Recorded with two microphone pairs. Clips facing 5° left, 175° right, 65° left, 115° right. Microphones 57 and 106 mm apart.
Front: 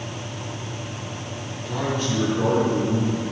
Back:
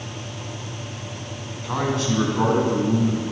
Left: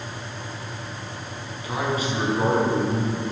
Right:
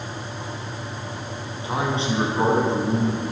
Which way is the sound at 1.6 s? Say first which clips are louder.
Back 2 dB, right 1 dB; 175° right.